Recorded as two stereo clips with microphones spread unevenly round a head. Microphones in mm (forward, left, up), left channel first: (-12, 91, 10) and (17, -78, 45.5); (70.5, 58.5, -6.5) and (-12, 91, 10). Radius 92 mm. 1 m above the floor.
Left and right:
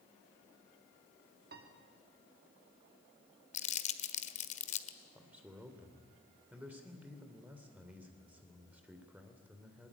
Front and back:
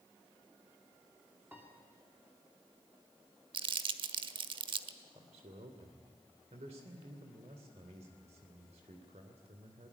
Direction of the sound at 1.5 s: 120° right.